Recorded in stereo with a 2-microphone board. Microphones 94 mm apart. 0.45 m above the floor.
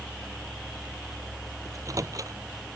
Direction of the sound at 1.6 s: 40° right (ahead or behind).